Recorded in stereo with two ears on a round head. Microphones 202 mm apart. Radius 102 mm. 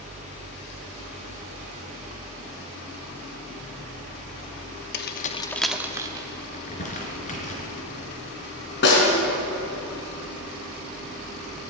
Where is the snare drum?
55° left (ahead or behind), 4 m.